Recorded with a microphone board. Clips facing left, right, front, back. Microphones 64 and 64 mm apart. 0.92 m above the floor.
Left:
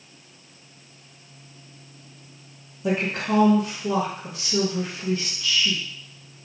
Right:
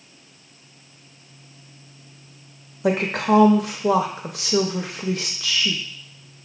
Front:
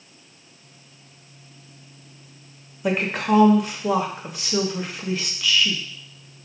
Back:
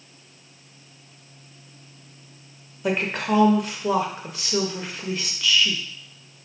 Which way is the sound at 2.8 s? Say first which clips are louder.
Right 4 dB, front 2 dB; 90° right.